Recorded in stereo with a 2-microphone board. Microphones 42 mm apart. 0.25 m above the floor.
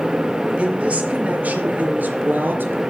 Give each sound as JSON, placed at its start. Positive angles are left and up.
{"t": 0.6, "sound": "a woman speaking", "side_deg": -30, "distance_m": 4.5}